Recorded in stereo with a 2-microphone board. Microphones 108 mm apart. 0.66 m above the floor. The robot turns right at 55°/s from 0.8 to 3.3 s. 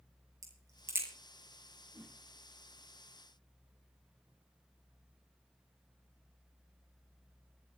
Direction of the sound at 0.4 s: 35° right (ahead or behind).